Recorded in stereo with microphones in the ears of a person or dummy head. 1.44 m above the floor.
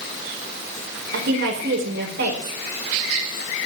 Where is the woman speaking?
60° right (ahead or behind), 5 m.